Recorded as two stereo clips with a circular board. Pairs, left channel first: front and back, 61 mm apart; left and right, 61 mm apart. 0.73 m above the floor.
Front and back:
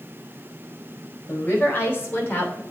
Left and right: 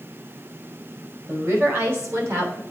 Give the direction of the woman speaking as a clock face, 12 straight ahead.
2 o'clock.